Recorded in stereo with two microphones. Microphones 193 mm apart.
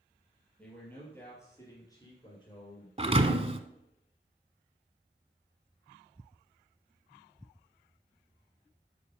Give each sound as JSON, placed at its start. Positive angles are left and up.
{"t": 0.6, "sound": "a man speaking", "side_deg": 5, "distance_m": 4.0}
{"t": 3.0, "sound": "a thud", "side_deg": -30, "distance_m": 0.8}